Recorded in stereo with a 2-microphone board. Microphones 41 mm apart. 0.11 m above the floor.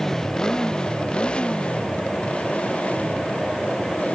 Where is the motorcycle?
10° left (ahead or behind); by 4.2 s 35° left (ahead or behind).